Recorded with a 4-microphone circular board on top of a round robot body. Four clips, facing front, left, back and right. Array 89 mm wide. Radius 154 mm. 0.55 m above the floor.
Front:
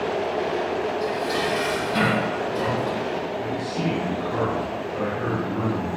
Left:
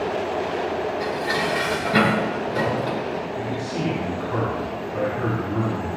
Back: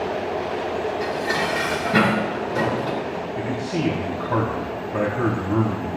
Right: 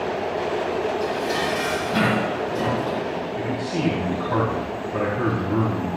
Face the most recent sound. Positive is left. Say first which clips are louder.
# right 1 dB, back 2 dB
turn(degrees=-155)